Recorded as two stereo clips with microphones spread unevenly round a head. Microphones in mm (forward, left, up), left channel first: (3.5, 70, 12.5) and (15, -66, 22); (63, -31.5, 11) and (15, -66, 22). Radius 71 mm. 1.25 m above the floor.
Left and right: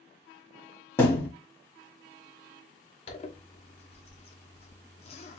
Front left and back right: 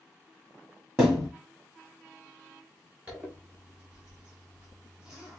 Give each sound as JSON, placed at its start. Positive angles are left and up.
{"t": 1.0, "sound": "a thud", "azimuth_deg": 170, "distance_m": 1.2}
{"t": 3.1, "sound": "a zipper", "azimuth_deg": 135, "distance_m": 1.0}